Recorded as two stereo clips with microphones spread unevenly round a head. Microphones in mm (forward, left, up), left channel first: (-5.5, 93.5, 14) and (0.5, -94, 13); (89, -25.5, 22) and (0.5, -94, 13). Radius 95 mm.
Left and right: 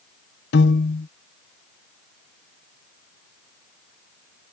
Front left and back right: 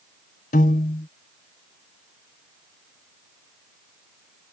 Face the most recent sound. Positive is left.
turn(degrees=55)